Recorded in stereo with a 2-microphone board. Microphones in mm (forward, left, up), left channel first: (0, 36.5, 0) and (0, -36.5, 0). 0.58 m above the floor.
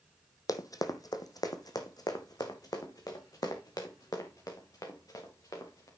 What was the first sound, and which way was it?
Running footsteps, 55° left (ahead or behind).